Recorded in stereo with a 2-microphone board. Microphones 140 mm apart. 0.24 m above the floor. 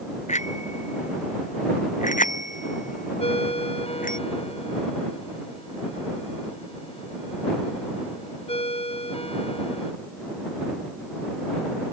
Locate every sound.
0.3 s a bicycle bell: 55° left (ahead or behind); by 4.2 s 75° left (ahead or behind)
3.2 s a ringtone: 45° left (ahead or behind)